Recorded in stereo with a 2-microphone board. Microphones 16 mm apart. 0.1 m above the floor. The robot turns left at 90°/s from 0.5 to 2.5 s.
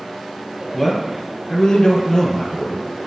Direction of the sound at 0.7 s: 175° left.